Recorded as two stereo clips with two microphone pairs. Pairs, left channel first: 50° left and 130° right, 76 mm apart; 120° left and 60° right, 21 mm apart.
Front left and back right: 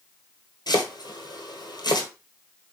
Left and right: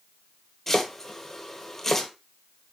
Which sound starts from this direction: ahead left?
Chopping, at 0.7 s.